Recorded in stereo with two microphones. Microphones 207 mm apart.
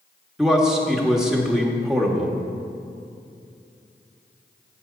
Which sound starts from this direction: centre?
A man speaking, at 0.4 s.